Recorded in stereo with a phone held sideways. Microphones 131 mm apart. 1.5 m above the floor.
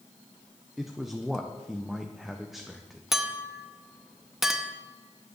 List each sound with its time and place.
0.8 s a man speaking: centre (ahead or behind), 0.8 m
3.1 s a clink: 5° right (ahead or behind), 0.9 m